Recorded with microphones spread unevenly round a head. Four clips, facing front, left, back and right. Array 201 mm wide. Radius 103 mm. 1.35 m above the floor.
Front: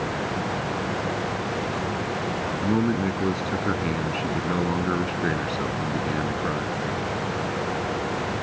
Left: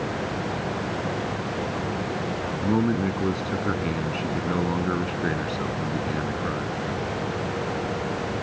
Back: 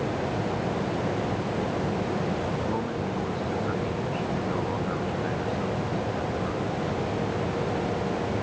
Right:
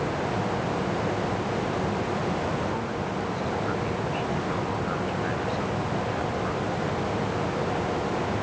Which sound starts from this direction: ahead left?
A man speaking, at 2.6 s.